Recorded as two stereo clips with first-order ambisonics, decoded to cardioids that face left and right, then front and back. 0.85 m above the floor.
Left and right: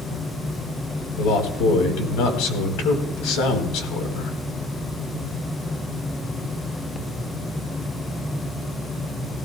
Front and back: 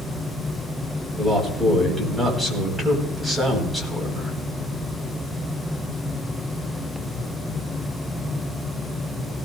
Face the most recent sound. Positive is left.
turn(degrees=85)